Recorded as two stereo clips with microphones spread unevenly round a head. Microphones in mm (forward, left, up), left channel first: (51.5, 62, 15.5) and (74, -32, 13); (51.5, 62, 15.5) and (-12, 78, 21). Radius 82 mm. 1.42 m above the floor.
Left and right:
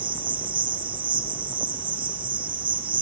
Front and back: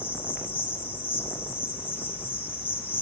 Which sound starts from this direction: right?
An insect, at 0.0 s.